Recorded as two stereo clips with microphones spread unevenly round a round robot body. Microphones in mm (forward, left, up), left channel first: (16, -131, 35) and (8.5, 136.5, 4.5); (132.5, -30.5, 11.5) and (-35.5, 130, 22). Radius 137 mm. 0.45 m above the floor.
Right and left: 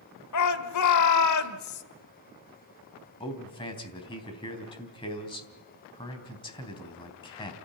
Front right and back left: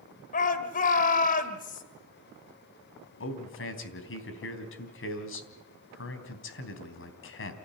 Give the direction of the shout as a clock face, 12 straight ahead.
3 o'clock.